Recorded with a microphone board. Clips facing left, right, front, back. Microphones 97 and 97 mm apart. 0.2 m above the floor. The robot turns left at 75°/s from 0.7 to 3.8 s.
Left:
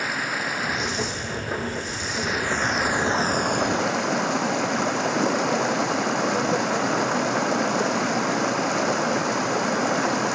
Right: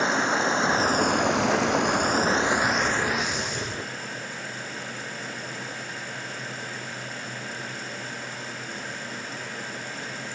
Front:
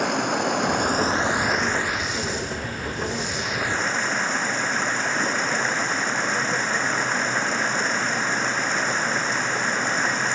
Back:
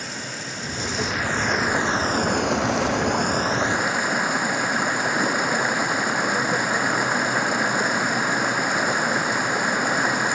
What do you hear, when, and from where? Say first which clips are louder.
0.0 s running water: right 4 dB, front 11 dB; 25° right; by 10.4 s 100° left